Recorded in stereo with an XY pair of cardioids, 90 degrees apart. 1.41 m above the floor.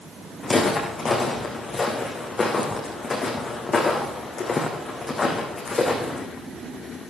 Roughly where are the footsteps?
Ahead left.